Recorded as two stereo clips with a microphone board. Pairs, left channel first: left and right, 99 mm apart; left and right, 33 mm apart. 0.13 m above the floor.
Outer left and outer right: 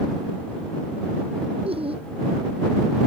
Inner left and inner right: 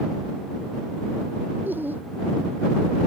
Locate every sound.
1.6 s laughter: 70° right (ahead or behind)